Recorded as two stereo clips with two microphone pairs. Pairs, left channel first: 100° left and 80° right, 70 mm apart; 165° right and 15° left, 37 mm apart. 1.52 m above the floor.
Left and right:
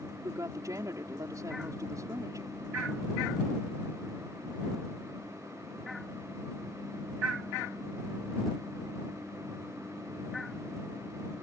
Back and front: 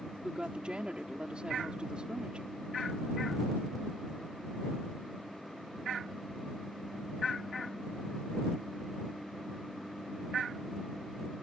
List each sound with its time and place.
0.2 s a woman speaking: 50° right